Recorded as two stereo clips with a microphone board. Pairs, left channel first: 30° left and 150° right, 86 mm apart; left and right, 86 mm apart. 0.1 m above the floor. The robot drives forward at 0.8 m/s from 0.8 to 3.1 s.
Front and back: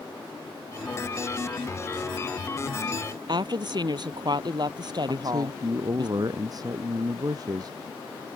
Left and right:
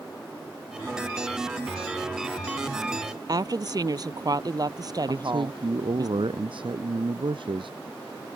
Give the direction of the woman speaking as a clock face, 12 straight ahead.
4 o'clock.